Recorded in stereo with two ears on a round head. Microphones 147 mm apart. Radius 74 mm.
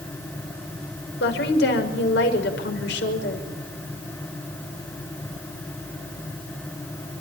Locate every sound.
1.2 s a woman speaking: 70° left (ahead or behind), 5.5 m